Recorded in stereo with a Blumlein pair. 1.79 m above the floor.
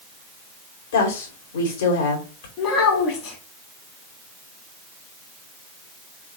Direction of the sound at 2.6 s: 35° left.